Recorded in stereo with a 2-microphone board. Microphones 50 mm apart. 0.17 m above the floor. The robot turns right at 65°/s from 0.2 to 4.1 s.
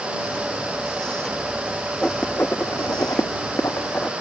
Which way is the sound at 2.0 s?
10° left (ahead or behind).